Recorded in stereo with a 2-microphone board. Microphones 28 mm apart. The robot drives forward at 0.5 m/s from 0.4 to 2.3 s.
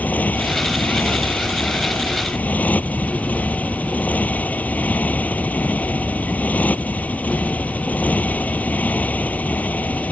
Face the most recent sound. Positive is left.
turn(degrees=65)  # may be behind; listen again after turning